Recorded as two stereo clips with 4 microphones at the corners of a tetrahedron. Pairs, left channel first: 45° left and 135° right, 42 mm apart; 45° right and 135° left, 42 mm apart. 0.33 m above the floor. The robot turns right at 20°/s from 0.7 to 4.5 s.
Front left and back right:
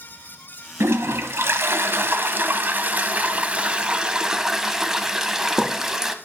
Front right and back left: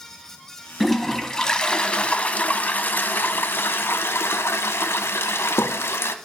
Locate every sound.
0.8 s a toilet flushing: 130° right, 0.6 m; by 6.2 s 55° right, 0.6 m